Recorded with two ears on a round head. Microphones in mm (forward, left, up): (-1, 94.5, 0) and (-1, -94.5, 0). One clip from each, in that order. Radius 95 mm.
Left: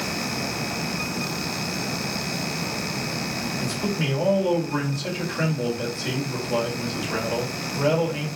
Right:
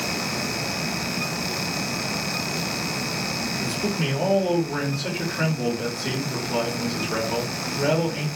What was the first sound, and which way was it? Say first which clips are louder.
A man speaking: right 1 dB; 25° left (ahead or behind).